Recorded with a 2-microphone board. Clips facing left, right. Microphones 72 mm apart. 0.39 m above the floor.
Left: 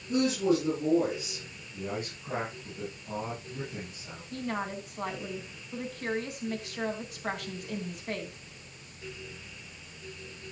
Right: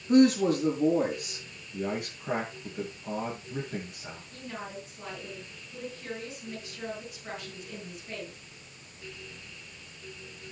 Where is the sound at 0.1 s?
70° right (ahead or behind), 7 m.